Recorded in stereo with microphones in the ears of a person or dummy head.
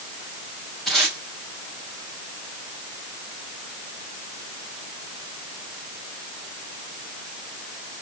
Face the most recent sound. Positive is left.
turn(degrees=0)  # may be behind; listen again after turning